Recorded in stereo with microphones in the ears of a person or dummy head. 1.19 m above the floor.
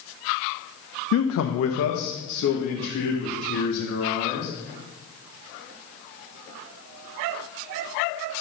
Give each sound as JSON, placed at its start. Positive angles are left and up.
{"t": 1.1, "sound": "a man speaking", "side_deg": 80, "distance_m": 0.6}